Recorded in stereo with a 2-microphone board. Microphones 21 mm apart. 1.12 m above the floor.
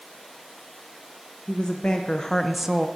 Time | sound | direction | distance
1.5 | a woman speaking | 70° left (ahead or behind) | 1.1 m